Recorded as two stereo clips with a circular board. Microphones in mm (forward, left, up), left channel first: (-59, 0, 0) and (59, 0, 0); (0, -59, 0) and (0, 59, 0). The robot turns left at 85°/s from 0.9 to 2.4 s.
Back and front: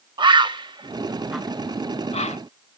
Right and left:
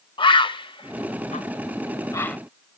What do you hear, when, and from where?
0.2 s a bird: 45° right, 0.5 m; by 2.4 s 170° right, 0.5 m